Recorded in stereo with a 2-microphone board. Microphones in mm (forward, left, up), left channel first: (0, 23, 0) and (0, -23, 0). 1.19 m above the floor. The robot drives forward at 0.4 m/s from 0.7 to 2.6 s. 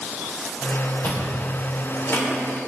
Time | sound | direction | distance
1.0 | chewing | 40° left (ahead or behind) | 4 m